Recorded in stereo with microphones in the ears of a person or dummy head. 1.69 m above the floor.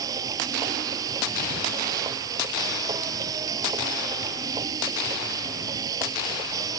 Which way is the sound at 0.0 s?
25° right (ahead or behind).